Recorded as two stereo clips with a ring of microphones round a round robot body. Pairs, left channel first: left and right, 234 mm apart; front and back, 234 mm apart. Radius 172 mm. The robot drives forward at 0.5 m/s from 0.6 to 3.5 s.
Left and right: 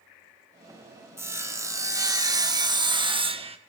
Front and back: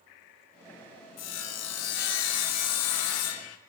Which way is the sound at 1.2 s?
10° right.